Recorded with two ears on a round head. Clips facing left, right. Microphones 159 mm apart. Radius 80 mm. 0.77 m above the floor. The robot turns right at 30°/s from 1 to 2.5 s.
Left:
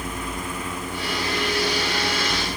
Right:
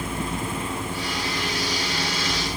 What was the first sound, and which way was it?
Only background noise.